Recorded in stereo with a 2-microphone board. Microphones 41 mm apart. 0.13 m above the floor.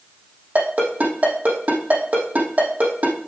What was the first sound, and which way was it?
A ringtone, 40° right (ahead or behind).